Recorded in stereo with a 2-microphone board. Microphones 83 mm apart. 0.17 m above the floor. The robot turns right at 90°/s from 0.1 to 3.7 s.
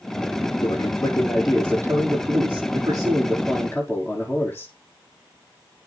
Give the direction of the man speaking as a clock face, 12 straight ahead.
8 o'clock.